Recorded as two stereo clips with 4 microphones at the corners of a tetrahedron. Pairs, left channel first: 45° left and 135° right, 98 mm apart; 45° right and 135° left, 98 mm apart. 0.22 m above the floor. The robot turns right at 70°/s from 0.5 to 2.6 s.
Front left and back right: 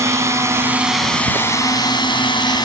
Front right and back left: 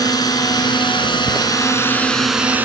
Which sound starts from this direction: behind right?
Footsteps, at 1.3 s.